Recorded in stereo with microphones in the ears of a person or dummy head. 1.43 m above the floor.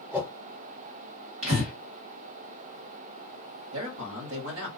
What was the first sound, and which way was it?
A whoosh, 5° right (ahead or behind).